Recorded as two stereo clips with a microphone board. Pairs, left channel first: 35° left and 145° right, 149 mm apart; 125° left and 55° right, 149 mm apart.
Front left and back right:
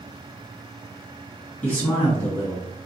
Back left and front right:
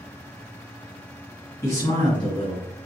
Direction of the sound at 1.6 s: 100° left.